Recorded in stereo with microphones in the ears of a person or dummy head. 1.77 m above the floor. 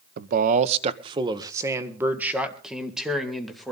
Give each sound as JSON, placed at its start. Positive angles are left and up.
{"t": 0.2, "sound": "a man speaking", "side_deg": -55, "distance_m": 0.9}